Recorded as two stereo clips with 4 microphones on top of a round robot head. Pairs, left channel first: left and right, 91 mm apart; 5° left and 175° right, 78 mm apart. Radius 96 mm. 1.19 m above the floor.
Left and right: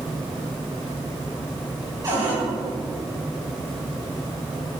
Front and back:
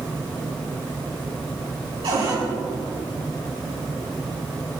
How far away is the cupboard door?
About 7.5 m.